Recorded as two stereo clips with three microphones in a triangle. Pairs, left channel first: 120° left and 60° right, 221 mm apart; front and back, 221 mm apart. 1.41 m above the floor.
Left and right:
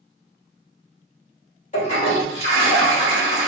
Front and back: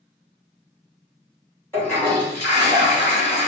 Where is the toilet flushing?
75° left, 1.5 m.